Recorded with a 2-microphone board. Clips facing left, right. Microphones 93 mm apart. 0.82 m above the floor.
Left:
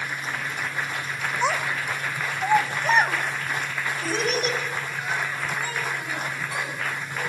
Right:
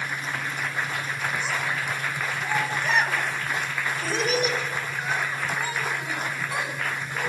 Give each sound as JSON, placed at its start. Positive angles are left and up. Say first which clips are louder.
{"t": 1.4, "sound": "a child speaking", "louder": "left 3 dB", "side_deg": 85, "distance_m": 2.0}